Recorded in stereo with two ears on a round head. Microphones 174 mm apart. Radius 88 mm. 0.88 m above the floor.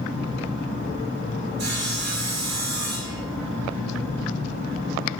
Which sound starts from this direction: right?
Sawing, at 1.6 s.